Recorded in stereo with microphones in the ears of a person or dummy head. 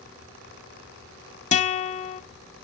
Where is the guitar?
35° left (ahead or behind), 0.6 m.